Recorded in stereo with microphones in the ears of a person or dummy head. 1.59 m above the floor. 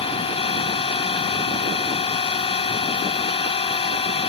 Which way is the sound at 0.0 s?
30° left (ahead or behind).